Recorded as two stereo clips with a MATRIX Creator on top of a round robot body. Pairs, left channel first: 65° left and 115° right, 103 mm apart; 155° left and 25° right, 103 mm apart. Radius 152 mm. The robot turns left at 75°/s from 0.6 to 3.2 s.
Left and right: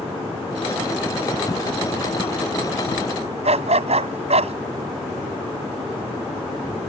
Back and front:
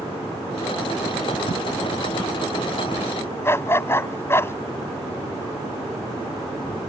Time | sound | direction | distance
3.4 | a dog barking | 135° right | ?